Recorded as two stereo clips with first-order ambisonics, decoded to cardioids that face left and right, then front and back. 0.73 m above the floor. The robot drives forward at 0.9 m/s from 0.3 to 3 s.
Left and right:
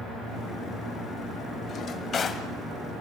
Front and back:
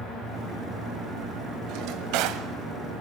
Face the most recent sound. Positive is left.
turn(degrees=165)